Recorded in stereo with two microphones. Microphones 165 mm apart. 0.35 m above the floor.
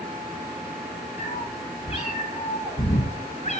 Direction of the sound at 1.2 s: 40° left (ahead or behind).